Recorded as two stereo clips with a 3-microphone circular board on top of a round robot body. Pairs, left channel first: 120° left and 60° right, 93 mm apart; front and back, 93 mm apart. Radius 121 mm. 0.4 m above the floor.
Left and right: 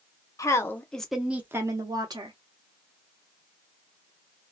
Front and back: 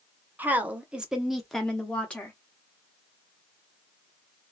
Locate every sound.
0.4 s a woman speaking: 125° left, 0.9 m; by 2.4 s 75° right, 1.1 m